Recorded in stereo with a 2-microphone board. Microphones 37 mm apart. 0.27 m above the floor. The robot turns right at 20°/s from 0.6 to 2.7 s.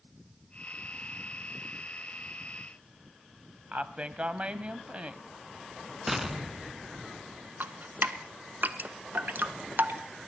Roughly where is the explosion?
Centre.